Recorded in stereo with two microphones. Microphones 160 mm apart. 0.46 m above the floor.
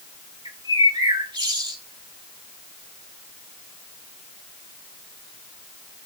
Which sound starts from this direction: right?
A bird, at 0.5 s.